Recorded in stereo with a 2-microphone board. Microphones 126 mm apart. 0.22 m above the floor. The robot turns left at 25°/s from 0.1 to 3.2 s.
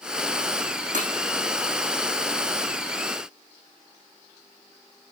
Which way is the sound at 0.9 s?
75° right (ahead or behind).